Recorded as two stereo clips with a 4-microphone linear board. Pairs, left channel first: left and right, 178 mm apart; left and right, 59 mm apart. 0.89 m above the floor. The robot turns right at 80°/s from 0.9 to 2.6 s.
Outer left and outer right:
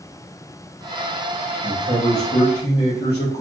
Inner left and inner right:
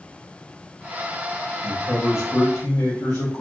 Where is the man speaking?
25° left, 1.4 m; by 3.4 s 100° left, 1.4 m.